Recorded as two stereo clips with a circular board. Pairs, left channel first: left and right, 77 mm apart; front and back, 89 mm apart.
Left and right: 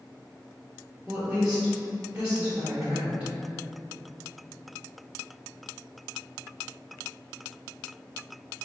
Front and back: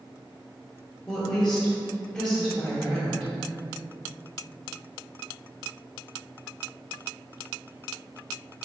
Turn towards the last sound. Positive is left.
turn(degrees=-55)